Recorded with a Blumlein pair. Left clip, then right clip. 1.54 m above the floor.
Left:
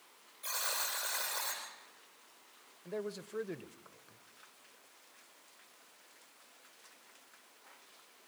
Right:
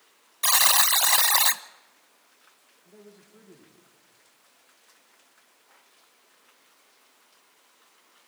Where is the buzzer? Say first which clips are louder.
Right 16 dB; 50° right, 0.8 m.